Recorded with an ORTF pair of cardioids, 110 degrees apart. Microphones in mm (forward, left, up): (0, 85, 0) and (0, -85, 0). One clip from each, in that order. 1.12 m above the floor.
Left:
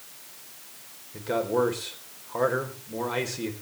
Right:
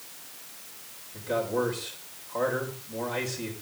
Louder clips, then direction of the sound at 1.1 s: Left 3 dB; 35° left.